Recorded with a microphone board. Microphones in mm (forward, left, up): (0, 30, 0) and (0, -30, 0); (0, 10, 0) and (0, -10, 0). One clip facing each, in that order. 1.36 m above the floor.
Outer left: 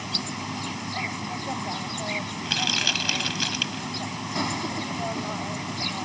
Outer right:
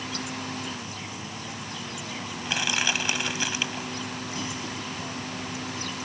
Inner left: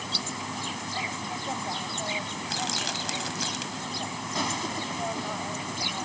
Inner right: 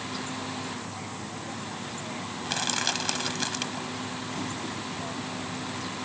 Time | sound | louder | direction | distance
0.0 | an insect | outer left 1 dB, inner left 4 dB | 65° left (ahead or behind) | ?
2.5 | crushing | outer right 2 dB, inner right 3 dB | 20° right (ahead or behind) | ?